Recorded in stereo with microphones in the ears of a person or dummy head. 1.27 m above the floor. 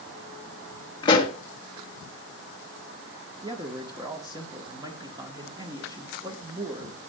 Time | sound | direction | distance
1.0 | a pop | 35° left (ahead or behind) | 1.6 m
3.4 | a man speaking | 15° right (ahead or behind) | 1.6 m